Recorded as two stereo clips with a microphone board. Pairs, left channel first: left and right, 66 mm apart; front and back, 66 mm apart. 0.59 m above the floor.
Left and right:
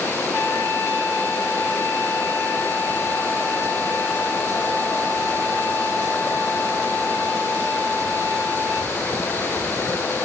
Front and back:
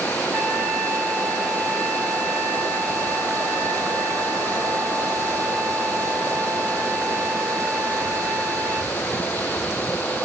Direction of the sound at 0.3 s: 95° left.